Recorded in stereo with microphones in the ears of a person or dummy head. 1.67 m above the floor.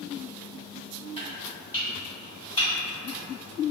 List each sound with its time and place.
1.2 s chopping: 25° left (ahead or behind), 1.5 m